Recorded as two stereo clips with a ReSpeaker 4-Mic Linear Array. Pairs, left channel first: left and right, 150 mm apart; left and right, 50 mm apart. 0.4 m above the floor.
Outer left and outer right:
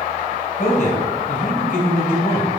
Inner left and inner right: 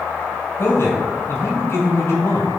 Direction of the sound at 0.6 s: 55° left (ahead or behind).